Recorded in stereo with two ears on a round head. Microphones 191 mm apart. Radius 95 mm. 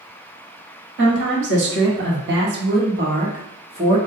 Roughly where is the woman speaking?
Right.